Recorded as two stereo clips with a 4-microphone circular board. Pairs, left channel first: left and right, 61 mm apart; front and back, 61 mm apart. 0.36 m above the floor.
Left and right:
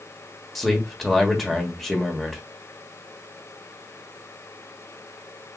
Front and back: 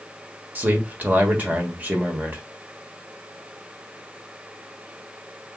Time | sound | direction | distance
0.6 | a man speaking | straight behind | 1.2 m